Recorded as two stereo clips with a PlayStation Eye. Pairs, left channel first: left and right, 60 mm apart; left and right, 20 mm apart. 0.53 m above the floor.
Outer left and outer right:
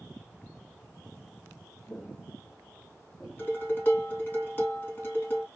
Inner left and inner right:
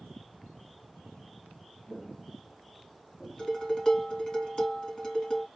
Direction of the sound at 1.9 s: 40° left (ahead or behind).